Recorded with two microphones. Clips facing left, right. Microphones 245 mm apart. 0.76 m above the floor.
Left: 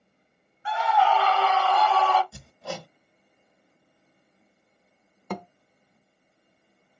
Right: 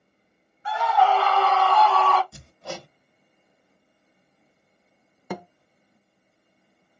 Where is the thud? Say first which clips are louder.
Even; 5° right (ahead or behind), 0.5 m.